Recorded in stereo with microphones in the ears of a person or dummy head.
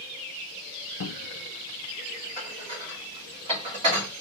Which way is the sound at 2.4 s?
35° right (ahead or behind).